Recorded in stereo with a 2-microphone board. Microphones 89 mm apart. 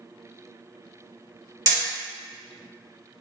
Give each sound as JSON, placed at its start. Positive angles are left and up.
{"t": 1.7, "sound": "hammering", "side_deg": -45, "distance_m": 1.3}